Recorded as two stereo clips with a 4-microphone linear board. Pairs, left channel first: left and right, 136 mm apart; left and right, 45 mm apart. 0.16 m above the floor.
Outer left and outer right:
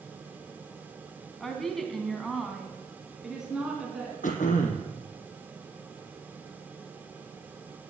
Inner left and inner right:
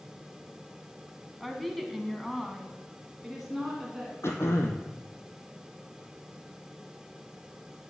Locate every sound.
1.4 s a woman speaking: 5° left (ahead or behind), 1.6 m; by 4.1 s 5° right (ahead or behind), 2 m
4.2 s throat clearing: 70° left (ahead or behind), 1.5 m